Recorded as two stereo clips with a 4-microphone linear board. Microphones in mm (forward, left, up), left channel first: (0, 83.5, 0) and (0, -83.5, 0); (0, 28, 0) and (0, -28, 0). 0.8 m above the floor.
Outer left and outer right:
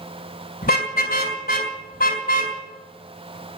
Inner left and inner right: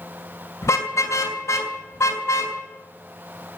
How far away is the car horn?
About 2.5 m.